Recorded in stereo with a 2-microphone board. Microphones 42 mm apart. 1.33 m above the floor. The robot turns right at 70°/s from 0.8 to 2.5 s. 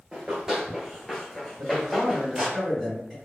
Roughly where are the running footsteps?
Right.